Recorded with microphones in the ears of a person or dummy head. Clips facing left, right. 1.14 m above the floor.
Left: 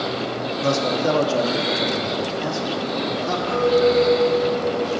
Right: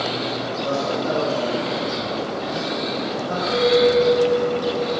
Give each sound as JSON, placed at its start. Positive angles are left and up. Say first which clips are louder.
{"t": 0.6, "sound": "a man speaking", "louder": "left 3 dB", "side_deg": 75, "distance_m": 1.7}
{"t": 3.5, "sound": "a clink", "louder": "right 1 dB", "side_deg": -10, "distance_m": 2.5}